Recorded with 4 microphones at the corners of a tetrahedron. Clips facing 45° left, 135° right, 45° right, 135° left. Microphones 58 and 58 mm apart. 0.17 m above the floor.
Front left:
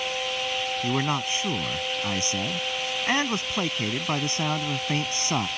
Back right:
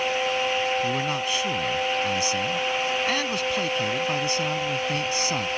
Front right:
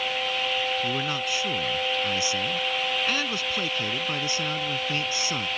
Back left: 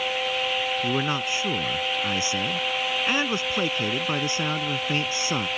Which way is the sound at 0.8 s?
90° left.